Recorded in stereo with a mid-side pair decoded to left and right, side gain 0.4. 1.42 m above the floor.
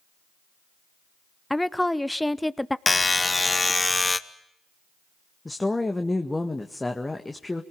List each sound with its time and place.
1.5 s a woman speaking: 10° left, 0.8 m
2.9 s a buzzer: 25° left, 1.3 m
5.5 s a woman speaking: 20° left, 1.9 m